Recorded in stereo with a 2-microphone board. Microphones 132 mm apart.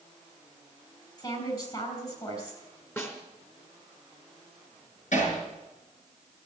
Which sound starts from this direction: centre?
A snare drum, at 3.0 s.